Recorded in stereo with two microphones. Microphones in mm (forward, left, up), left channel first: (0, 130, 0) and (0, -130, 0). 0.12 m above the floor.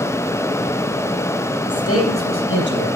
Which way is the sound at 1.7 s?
65° left (ahead or behind).